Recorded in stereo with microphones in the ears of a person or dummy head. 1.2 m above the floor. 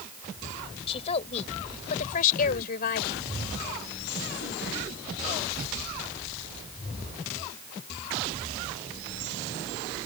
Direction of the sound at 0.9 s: 35° left (ahead or behind).